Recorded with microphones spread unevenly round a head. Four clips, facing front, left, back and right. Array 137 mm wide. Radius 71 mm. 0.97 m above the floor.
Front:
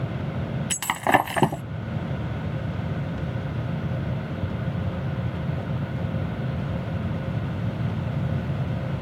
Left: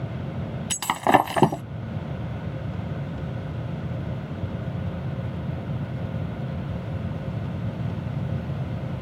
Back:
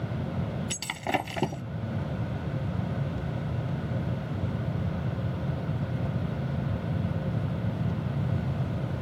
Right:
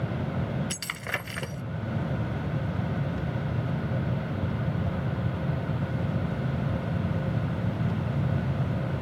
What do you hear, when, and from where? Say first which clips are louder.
0.7 s breaking glass: left 16 dB, front 12 dB; 65° left